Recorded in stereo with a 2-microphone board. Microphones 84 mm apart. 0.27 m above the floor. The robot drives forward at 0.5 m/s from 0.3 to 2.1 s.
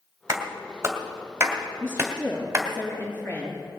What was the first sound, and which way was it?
A clap, 35° right (ahead or behind).